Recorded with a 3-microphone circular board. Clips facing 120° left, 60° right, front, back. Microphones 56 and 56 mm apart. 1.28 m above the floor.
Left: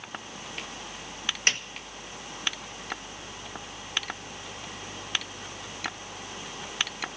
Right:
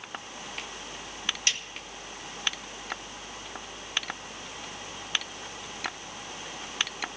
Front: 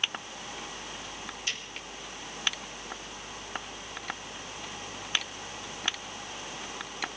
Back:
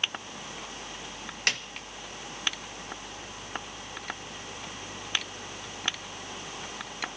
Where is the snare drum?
165° left, 0.9 m.